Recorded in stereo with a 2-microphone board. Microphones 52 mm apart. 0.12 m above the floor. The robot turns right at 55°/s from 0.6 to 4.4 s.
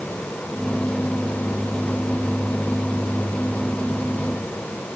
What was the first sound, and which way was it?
Only background noise.